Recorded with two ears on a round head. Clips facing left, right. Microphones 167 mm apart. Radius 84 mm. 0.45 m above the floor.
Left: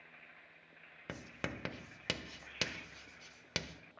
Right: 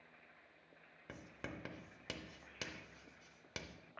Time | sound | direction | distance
1.1 | writing | 70° left (ahead or behind) | 0.5 m